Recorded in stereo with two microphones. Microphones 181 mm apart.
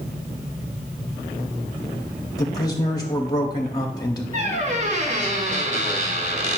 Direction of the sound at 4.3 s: 40° right (ahead or behind).